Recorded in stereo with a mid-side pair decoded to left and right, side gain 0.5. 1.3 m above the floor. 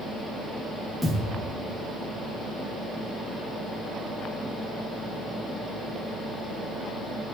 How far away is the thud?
About 6 m.